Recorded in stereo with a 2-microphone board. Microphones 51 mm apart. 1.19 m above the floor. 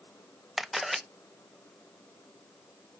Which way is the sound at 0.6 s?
5° right (ahead or behind).